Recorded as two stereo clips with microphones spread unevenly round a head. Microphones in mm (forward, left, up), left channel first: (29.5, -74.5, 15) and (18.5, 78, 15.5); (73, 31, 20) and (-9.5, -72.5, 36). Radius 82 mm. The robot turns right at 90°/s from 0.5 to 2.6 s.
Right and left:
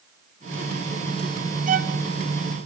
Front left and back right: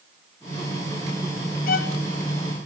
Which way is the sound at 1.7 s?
55° left.